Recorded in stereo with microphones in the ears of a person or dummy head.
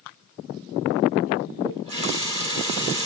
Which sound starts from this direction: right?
A running tap, at 1.6 s.